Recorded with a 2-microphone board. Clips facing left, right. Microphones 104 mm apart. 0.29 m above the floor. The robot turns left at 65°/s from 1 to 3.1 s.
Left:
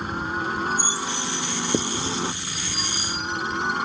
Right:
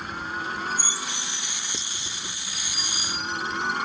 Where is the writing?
50° left (ahead or behind); by 2.4 s 15° left (ahead or behind).